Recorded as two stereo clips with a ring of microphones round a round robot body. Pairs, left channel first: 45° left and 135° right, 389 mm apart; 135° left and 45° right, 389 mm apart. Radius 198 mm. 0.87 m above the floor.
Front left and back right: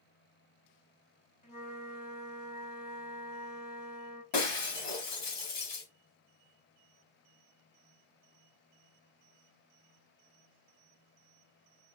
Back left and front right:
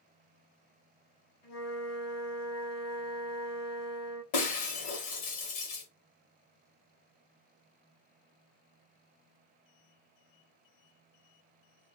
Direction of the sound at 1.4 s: 110° left.